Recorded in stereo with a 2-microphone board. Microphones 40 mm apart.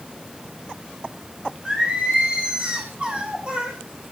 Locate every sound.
1.6 s singing: 30° right (ahead or behind), 4.5 m